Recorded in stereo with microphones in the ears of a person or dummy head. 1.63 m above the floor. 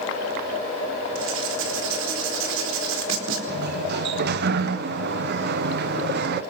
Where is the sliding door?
55° right (ahead or behind), 0.8 m.